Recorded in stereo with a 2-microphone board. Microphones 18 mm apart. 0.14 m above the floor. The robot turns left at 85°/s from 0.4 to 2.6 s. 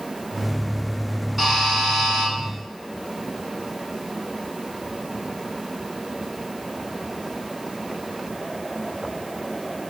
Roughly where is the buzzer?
Centre.